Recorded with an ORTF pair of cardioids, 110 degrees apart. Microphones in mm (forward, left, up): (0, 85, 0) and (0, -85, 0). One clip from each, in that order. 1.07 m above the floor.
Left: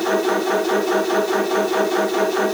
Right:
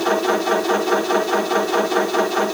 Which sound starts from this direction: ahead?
A machine running, at 0.0 s.